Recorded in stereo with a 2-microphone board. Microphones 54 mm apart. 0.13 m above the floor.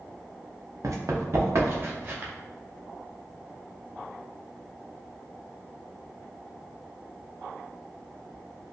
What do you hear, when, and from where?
0.8 s running footsteps: 70° right (ahead or behind), 0.9 m; by 2.3 s 40° right (ahead or behind), 1.5 m